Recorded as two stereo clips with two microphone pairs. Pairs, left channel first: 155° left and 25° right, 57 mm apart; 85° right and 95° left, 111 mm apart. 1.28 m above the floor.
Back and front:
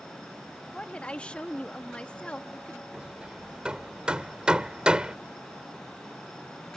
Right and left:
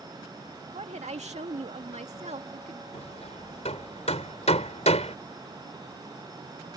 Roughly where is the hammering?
Right.